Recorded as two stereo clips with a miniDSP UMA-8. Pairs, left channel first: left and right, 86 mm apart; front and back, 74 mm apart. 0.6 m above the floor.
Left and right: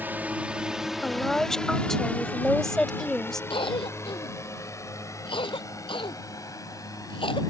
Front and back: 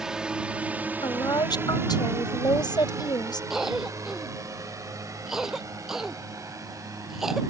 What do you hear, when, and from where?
0.0 s a drone: 115° right; by 7.5 s 135° left
1.0 s a woman speaking: 5° left
3.5 s a cough: 95° left